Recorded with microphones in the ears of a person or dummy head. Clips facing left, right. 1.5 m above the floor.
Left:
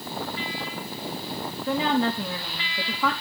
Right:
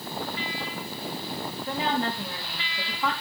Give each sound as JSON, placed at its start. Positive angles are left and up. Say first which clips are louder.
{"t": 1.7, "sound": "a woman speaking", "louder": "left 5 dB", "side_deg": 75, "distance_m": 2.5}